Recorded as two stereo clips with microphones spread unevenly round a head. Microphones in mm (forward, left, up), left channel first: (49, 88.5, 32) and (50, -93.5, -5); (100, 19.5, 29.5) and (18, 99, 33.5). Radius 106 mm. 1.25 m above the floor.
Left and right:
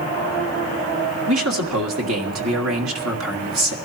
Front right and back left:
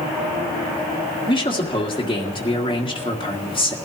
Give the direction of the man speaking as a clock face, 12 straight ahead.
4 o'clock.